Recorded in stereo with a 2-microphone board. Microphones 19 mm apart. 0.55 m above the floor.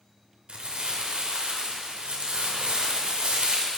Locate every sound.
0.5 s crumpling: 75° right (ahead or behind), 1.0 m